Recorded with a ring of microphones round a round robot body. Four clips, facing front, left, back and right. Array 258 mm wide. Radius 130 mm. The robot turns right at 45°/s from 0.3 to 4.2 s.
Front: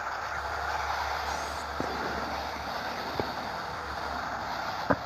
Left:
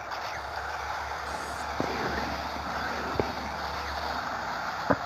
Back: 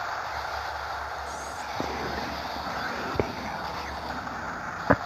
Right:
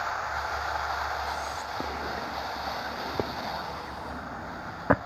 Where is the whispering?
75° left, 0.6 m; by 5.0 s 150° right, 0.6 m.